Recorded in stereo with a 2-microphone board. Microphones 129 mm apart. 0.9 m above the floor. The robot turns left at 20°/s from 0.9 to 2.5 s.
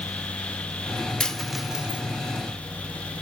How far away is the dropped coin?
About 0.9 m.